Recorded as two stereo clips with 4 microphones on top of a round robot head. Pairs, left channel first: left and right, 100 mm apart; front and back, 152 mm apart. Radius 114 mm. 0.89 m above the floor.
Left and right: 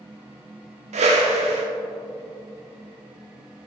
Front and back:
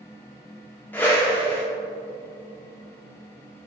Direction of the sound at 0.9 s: 80° right.